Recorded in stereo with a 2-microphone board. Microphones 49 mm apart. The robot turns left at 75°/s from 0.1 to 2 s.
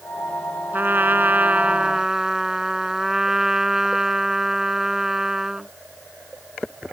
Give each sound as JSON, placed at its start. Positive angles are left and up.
{"t": 0.7, "sound": "a trumpet", "azimuth_deg": -65}